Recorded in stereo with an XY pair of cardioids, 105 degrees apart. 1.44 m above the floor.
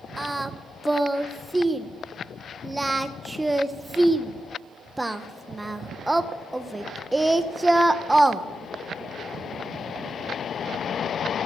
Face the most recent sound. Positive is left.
turn(degrees=-15)